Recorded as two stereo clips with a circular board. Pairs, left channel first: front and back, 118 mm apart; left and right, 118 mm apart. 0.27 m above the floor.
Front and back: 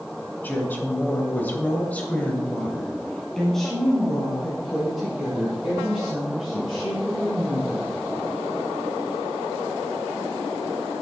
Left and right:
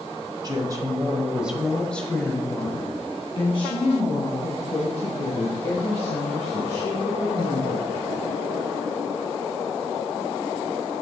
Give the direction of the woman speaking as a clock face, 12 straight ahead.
2 o'clock.